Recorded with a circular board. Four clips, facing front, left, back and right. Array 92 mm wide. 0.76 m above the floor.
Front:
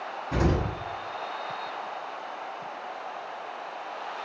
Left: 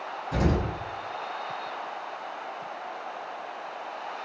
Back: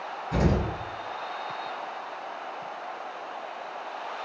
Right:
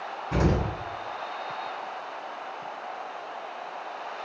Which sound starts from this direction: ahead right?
An explosion, at 0.3 s.